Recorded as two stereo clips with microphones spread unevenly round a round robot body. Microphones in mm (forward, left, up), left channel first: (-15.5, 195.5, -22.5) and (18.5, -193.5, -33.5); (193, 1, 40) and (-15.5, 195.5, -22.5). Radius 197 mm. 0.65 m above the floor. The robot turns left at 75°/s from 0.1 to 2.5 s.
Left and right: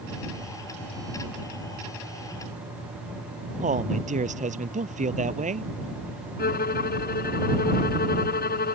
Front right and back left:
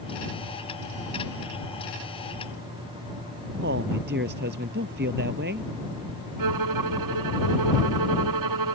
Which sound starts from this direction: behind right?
A man speaking, at 3.6 s.